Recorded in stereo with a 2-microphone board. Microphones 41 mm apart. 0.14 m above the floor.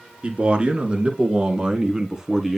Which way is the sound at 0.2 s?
30° right (ahead or behind).